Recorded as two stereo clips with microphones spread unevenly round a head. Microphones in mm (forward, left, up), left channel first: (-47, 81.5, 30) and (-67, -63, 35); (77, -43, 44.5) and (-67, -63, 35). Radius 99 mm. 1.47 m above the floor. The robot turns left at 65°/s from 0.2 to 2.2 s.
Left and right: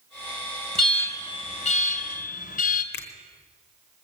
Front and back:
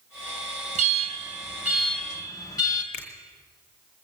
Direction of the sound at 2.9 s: 65° left.